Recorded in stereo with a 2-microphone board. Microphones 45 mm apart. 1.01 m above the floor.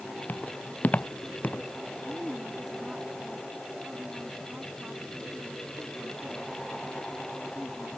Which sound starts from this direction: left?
Footsteps, at 0.3 s.